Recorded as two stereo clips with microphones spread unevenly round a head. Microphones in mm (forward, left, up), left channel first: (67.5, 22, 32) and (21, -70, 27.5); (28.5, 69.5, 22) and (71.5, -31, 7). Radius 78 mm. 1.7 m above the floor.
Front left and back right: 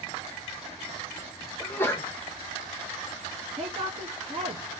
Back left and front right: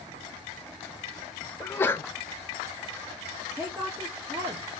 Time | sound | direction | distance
1.6 | a sneeze | 110° left | 0.5 m
3.6 | a woman speaking | 135° right | 0.7 m